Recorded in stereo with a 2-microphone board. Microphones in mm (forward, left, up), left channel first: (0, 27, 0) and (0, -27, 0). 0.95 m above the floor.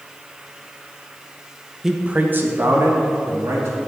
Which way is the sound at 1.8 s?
5° right (ahead or behind).